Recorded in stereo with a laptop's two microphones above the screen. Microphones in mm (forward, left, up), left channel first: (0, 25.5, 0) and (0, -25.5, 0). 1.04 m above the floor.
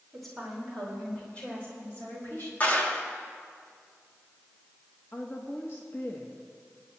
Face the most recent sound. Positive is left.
turn(degrees=50)  # may be behind; listen again after turning